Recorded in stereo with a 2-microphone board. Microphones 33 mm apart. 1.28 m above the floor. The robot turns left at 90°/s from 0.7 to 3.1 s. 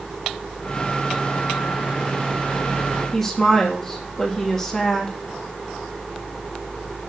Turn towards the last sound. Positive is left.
turn(degrees=10)  # may be behind; listen again after turning